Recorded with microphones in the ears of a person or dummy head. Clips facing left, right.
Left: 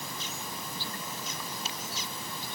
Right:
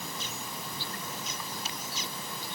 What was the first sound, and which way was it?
Only background noise.